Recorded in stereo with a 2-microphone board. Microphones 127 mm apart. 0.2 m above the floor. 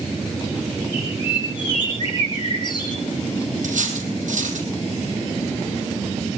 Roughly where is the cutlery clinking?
Right.